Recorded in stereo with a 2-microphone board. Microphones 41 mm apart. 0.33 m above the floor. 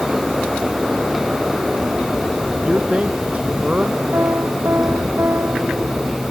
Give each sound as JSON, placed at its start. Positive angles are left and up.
{"t": 2.6, "sound": "a man speaking", "side_deg": -30}
{"t": 4.1, "sound": "a piano", "side_deg": -65}